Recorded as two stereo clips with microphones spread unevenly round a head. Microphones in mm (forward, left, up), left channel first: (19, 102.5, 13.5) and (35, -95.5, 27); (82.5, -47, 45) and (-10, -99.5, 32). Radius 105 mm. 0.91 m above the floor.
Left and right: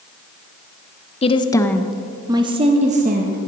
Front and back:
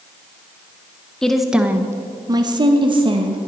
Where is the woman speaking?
120° left, 0.7 m; by 3.4 s 130° right, 1.3 m.